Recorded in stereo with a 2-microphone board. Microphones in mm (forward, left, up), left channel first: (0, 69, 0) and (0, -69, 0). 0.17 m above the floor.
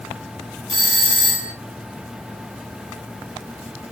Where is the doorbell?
35° right (ahead or behind), 3.5 m.